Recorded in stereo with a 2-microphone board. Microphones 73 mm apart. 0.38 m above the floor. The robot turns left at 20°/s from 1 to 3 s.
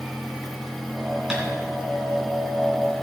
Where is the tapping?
10° right (ahead or behind), 3 m; by 1.4 s 5° right (ahead or behind), 3 m.